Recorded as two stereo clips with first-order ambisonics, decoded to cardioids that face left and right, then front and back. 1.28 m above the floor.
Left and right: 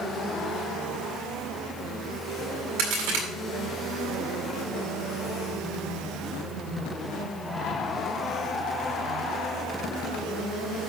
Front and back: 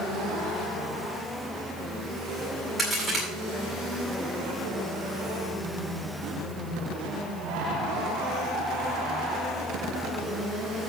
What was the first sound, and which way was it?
A crack, 85° right.